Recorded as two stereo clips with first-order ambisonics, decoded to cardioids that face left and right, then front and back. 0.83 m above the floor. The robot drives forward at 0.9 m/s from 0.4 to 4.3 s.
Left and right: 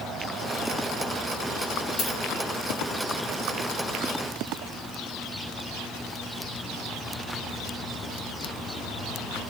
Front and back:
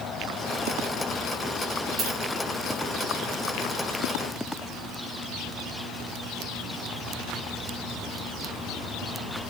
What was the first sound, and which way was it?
A dropped coin, 130° left.